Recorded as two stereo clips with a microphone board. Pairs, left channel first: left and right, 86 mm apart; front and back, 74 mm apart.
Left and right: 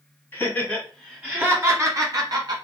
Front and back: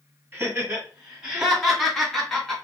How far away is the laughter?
About 1.3 m.